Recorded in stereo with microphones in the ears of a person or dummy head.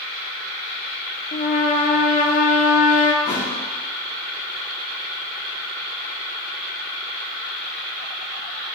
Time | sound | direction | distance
1.3 | a trumpet | 40° left (ahead or behind) | 1.2 m
3.2 | a thud | 25° left (ahead or behind) | 5.5 m